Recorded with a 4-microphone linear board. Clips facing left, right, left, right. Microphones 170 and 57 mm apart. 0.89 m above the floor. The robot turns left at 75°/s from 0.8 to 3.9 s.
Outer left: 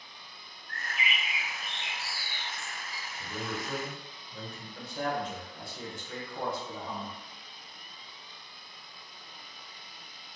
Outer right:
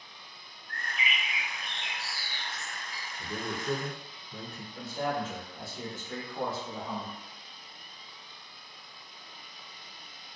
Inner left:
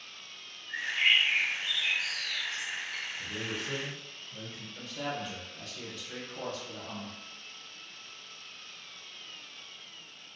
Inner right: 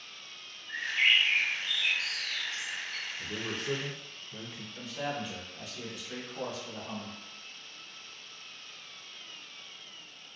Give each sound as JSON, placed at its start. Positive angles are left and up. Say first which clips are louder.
{"t": 0.7, "sound": "a bird", "louder": "even, even", "azimuth_deg": -25, "distance_m": 0.8}
{"t": 3.2, "sound": "a man speaking", "louder": "outer right 1 dB, inner right 2 dB", "azimuth_deg": -25, "distance_m": 0.6}
{"t": 4.8, "sound": "a man speaking", "louder": "outer right 1 dB, inner right 1 dB", "side_deg": -5, "distance_m": 1.0}